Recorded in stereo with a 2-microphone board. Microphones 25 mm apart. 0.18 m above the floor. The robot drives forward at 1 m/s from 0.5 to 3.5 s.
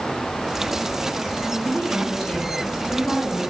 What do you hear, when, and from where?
1.6 s a woman speaking: 60° left (ahead or behind), 4.5 m; by 3.4 s 45° left (ahead or behind), 5.5 m